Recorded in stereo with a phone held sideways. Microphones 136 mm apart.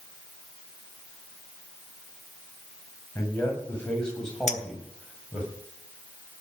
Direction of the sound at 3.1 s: 15° left (ahead or behind).